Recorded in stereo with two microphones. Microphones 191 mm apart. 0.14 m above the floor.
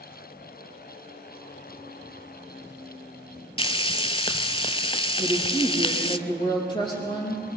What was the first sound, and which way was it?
Frying, 30° left (ahead or behind).